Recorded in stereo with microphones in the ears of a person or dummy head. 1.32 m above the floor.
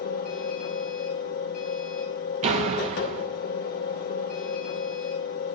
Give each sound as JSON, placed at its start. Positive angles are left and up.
{"t": 0.0, "sound": "a machine running", "side_deg": 40, "distance_m": 0.9}
{"t": 2.4, "sound": "a door slam", "side_deg": -35, "distance_m": 1.0}